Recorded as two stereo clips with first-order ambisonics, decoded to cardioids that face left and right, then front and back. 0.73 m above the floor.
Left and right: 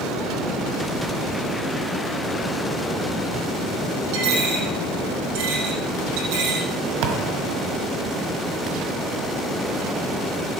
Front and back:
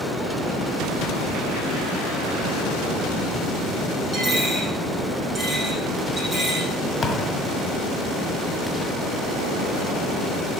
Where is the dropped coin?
95° right, 6.5 m.